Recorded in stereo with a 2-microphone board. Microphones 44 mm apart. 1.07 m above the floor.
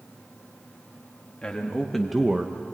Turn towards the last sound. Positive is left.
turn(degrees=-40)  # may be behind; listen again after turning